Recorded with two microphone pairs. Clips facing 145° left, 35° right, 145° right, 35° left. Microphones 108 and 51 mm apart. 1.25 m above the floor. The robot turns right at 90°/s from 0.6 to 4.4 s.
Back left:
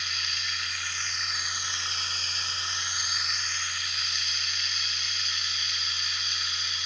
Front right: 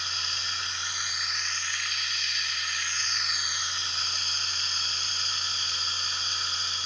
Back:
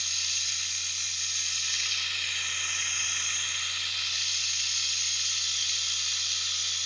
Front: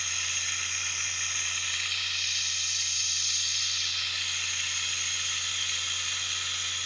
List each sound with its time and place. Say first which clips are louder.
0.0 s running water: front right 1 dB, front 3 dB; 5° right, 1.2 m; by 6.9 s 25° right, 1.2 m